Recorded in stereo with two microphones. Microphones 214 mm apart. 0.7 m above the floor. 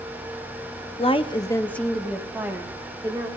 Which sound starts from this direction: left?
A woman speaking, at 1.0 s.